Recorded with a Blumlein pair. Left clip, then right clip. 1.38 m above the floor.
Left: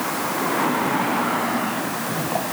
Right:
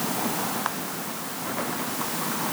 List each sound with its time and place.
Only background noise.